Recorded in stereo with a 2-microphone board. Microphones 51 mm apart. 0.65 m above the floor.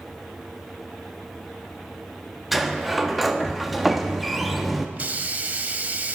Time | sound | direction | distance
2.5 | a sliding door | 5° right (ahead or behind) | 0.6 m
5.0 | a hiss | 35° right (ahead or behind) | 0.5 m